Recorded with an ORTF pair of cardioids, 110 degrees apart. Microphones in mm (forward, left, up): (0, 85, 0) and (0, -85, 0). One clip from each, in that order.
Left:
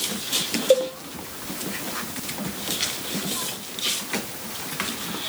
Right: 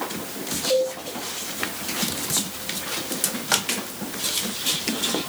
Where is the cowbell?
55° left, 1.1 m.